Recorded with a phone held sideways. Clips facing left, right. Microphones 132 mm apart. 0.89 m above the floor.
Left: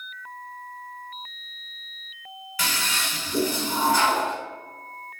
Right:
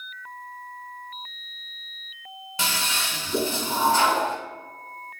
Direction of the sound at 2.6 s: 25° right (ahead or behind).